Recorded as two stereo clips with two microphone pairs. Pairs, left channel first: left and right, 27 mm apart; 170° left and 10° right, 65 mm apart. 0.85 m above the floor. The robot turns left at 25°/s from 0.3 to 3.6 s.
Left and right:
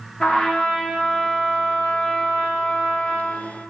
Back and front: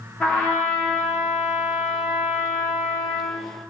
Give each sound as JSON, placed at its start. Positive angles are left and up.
{"t": 0.2, "sound": "a trumpet", "azimuth_deg": 110, "distance_m": 0.9}